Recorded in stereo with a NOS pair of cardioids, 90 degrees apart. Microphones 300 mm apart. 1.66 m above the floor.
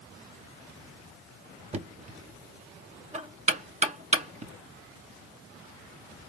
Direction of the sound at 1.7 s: 25° right.